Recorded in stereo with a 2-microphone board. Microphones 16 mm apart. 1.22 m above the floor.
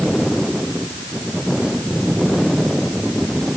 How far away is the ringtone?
No ringtone in this recording.